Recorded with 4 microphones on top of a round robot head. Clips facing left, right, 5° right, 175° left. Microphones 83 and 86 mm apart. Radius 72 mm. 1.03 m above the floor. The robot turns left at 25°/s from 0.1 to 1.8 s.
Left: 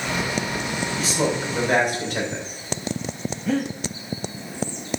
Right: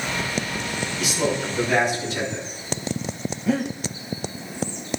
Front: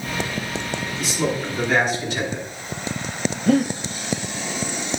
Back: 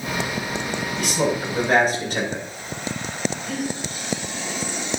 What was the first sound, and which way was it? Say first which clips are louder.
A man speaking: even, back 2 dB; 150° left.